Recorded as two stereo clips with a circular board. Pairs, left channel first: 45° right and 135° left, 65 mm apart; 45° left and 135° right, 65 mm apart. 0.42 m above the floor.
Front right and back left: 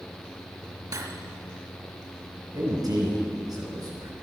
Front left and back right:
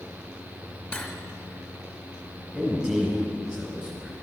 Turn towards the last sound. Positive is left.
turn(degrees=150)